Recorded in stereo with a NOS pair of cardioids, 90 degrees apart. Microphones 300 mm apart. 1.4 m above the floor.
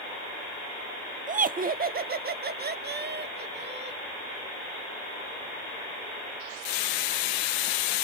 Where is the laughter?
25° right, 0.9 m; by 4.0 s 35° right, 2.5 m.